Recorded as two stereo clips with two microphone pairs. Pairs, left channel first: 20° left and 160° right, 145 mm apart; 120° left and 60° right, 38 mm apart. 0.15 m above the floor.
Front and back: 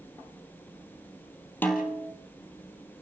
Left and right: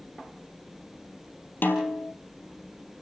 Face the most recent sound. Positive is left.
turn(degrees=95)